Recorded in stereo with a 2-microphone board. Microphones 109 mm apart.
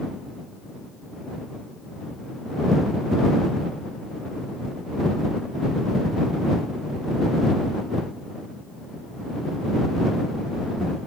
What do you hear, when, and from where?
Only background noise.